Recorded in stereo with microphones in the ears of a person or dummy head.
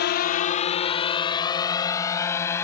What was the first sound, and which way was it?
A drone, 55° left (ahead or behind).